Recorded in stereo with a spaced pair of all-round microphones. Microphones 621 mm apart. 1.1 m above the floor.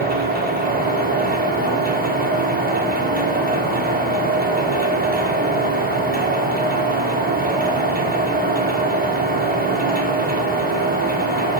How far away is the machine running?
About 0.9 m.